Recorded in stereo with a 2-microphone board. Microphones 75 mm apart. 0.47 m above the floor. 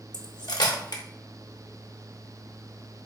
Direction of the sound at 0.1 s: 70° left (ahead or behind).